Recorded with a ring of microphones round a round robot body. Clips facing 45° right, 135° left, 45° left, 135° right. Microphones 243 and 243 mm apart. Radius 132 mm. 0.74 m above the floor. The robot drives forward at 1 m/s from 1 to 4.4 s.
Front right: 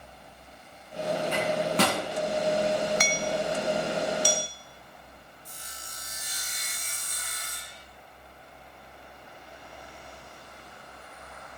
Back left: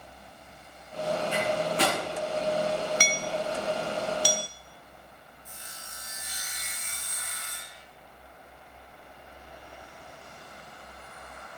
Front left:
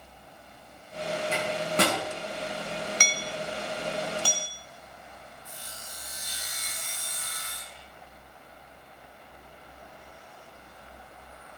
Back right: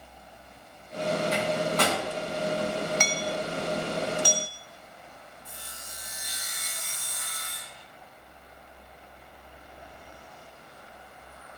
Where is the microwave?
20° right, 7 m.